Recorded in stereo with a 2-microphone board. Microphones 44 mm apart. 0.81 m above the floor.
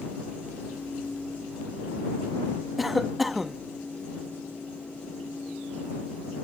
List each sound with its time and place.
2.8 s a cough: centre (ahead or behind)